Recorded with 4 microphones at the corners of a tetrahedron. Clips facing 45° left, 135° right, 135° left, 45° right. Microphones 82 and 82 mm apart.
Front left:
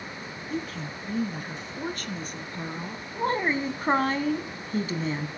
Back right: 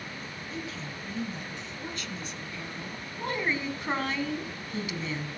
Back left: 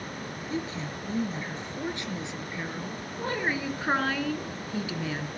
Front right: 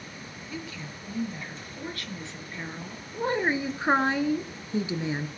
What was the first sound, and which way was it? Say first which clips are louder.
A woman speaking: front left 6 dB, back left 6 dB; 80° left.